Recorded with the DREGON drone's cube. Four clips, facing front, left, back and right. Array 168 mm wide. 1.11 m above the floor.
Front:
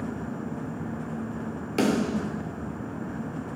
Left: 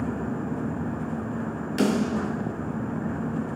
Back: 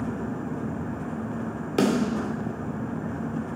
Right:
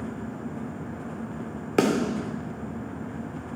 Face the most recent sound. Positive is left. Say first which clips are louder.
# right 1 dB, back 1 dB
turn(degrees=-105)